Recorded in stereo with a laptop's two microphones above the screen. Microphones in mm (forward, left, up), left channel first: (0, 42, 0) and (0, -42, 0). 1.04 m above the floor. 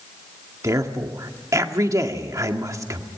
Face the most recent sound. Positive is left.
turn(degrees=-40)  # may be behind; listen again after turning